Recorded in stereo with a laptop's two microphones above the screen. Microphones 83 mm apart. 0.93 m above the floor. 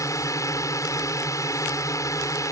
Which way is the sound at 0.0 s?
40° left (ahead or behind).